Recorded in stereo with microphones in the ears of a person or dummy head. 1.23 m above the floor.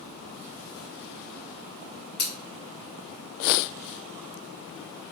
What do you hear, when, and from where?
2.2 s scissors: 20° left (ahead or behind), 1.5 m